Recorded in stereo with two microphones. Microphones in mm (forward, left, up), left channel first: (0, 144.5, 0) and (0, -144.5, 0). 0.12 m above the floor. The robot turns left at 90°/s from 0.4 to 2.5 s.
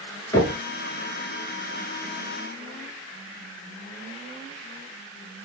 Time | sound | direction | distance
0.3 | knocking | 10° left (ahead or behind) | 1.1 m